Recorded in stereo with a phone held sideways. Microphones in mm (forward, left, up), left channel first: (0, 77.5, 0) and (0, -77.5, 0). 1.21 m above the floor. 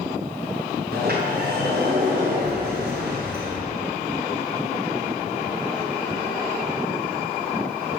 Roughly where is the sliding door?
Right.